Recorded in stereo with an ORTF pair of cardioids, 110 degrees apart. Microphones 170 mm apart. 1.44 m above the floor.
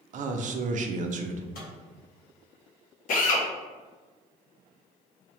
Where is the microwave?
60° left, 1.6 m.